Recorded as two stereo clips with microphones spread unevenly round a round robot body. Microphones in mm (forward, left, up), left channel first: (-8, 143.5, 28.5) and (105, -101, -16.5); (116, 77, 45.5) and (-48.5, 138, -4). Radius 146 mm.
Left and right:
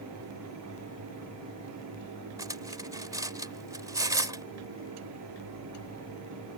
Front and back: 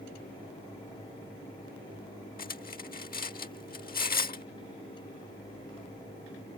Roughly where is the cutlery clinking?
Ahead.